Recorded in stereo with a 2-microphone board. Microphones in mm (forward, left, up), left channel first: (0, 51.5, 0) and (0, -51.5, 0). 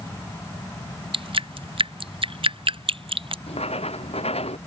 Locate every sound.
1.1 s dripping: 60° right (ahead or behind)
3.5 s writing: 85° left